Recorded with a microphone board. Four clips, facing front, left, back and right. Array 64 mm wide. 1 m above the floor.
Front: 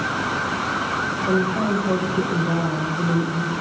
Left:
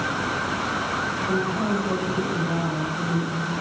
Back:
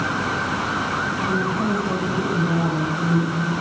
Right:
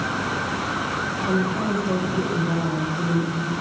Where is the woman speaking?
15° right, 5 m.